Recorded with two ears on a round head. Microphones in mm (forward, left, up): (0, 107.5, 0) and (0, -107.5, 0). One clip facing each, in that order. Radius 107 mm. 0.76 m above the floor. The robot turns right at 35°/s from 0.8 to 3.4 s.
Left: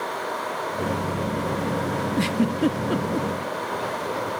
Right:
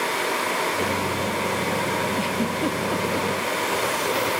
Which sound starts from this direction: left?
A giggle, at 2.2 s.